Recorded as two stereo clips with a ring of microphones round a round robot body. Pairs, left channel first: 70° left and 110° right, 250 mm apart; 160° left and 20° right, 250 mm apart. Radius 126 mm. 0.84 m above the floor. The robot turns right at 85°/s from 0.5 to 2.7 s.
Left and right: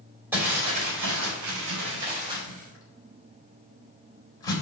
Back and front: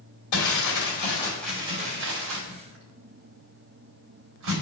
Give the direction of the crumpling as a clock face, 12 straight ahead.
6 o'clock.